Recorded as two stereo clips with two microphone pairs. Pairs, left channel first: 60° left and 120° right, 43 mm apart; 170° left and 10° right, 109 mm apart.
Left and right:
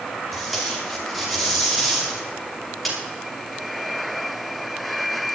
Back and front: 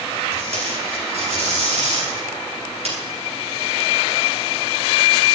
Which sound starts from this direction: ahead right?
Tape being pulled, at 0.3 s.